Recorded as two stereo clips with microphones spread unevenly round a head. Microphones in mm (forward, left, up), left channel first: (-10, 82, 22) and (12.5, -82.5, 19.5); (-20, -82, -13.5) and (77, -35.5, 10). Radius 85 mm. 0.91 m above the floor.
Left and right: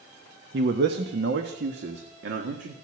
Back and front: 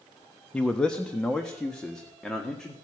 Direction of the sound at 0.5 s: 80° right.